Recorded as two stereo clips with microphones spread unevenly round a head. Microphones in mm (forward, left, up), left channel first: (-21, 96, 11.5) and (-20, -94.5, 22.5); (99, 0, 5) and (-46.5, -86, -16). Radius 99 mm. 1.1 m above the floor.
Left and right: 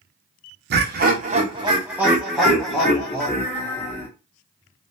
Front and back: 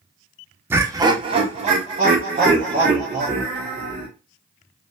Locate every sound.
0.7 s laughter: 80° right, 0.6 m; by 4.1 s 160° left, 1.5 m